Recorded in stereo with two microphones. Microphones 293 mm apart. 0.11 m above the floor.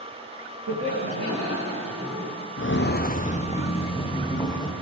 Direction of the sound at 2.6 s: 50° left (ahead or behind).